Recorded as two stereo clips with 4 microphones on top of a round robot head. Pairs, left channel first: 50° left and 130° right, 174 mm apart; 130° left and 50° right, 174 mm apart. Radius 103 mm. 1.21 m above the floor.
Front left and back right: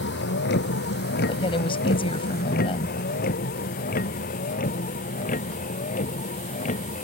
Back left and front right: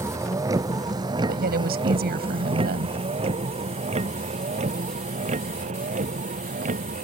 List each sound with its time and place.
0.0 s a vehicle: 25° left; by 7.0 s straight ahead
1.3 s a woman speaking: 15° right